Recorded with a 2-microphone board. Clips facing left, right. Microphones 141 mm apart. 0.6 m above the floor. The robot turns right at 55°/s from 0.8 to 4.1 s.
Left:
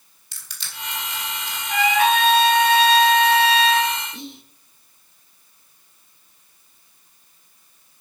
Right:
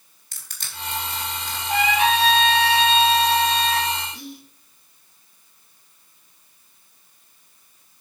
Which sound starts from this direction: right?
Crushing, at 0.3 s.